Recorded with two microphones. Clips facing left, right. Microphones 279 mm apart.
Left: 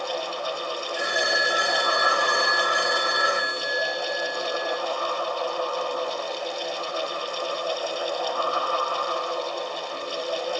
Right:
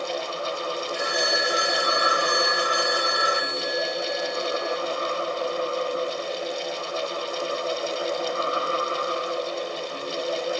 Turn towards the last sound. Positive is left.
turn(degrees=20)  # may be behind; listen again after turning